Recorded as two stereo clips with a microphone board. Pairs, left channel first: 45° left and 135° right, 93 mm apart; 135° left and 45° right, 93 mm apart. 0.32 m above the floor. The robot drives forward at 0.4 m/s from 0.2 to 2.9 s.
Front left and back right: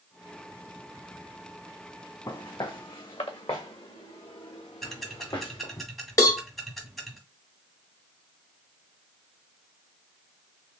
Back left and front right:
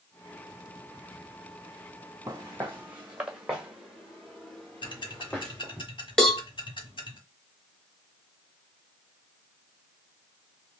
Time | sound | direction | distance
2.3 | footsteps | 10° left | 1.3 m
4.8 | ticking | 135° left | 1.2 m
6.2 | a cowbell | 55° left | 0.8 m